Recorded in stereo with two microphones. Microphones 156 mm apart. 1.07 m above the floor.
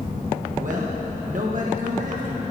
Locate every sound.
0.6 s a man speaking: 55° right (ahead or behind), 1.2 m